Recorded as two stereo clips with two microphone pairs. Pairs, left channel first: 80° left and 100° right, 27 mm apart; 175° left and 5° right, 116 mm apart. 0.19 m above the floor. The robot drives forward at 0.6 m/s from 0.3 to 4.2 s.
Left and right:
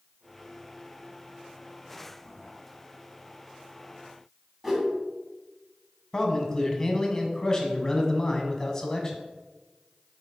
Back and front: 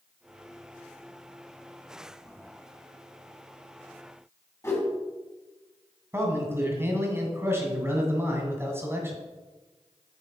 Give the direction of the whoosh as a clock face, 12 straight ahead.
5 o'clock.